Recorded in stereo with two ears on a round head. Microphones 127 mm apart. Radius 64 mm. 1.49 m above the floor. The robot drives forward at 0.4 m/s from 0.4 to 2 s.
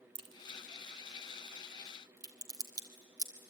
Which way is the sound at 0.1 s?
35° right (ahead or behind).